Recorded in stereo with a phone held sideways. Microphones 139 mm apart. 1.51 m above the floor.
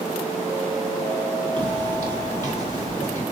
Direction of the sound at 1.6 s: 30° right (ahead or behind).